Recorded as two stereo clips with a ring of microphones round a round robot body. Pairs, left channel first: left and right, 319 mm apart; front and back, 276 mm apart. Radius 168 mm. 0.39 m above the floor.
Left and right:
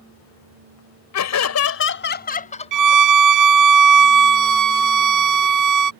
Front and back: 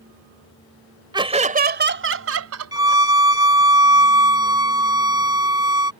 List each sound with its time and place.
1.1 s laughter: 105° left; by 3.0 s 165° left
2.7 s a violin: 105° right